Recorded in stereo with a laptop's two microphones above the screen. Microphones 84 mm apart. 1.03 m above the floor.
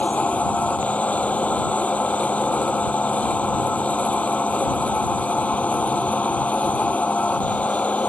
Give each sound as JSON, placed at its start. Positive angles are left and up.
{"t": 0.0, "sound": "a machine running", "side_deg": 15}